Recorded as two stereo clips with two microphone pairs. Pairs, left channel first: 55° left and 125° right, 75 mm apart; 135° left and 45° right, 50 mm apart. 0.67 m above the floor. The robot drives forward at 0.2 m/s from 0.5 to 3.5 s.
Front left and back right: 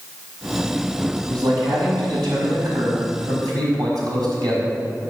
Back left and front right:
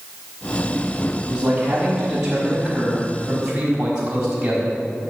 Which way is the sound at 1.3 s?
110° right.